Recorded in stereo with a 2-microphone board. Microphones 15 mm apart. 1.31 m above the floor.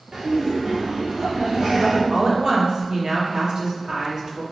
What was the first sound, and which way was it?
Laughter, 70° right (ahead or behind).